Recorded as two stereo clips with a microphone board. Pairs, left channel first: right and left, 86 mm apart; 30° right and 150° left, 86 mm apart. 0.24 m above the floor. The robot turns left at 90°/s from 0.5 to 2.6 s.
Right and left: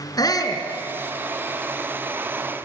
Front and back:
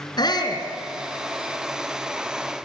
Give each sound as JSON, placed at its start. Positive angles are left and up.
{"t": 0.2, "sound": "a shout", "azimuth_deg": -55, "distance_m": 3.5}